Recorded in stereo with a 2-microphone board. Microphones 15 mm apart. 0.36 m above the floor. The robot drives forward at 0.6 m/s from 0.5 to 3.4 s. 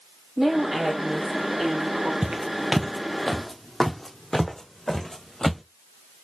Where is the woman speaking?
30° right (ahead or behind), 3.5 m; by 2.1 s 40° right (ahead or behind), 2.5 m.